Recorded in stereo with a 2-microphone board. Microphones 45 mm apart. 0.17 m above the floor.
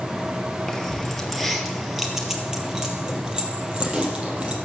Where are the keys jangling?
10° left (ahead or behind), 2.5 m; by 4.6 s 25° right (ahead or behind), 4 m.